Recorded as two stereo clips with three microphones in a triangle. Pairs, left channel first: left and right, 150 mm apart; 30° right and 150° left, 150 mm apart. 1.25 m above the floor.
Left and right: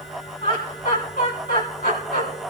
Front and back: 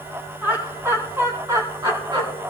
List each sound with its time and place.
0.4 s laughter: 70° left, 3.5 m; by 2.3 s 90° left, 4 m